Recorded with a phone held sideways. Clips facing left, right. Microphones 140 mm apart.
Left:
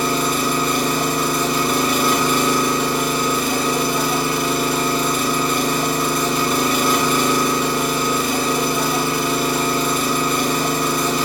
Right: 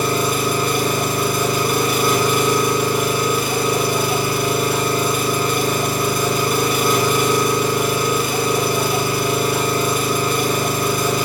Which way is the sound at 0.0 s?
10° right (ahead or behind).